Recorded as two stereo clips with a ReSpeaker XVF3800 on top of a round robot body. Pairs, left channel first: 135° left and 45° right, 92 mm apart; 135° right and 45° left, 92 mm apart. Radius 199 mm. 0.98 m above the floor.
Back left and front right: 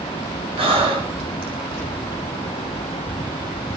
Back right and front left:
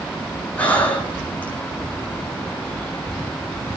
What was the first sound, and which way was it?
Breathing, 60° right.